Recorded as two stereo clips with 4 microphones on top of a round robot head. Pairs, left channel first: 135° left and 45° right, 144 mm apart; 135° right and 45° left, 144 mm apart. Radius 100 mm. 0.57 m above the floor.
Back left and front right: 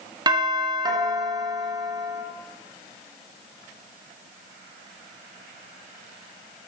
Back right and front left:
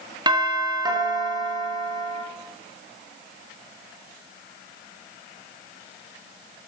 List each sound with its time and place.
0.3 s a doorbell: straight ahead, 2 m